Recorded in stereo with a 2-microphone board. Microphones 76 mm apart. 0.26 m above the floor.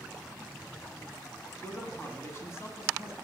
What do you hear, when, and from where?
1.6 s a man speaking: 30° left (ahead or behind), 3 m; by 3.1 s 40° left (ahead or behind), 2.5 m